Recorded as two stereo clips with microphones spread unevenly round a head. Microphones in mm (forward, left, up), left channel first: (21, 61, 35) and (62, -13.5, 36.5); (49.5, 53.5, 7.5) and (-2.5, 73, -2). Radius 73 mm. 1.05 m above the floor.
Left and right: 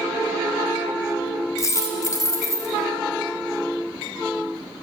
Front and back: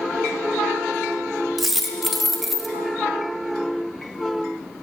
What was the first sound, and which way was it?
A dropped coin, 70° left.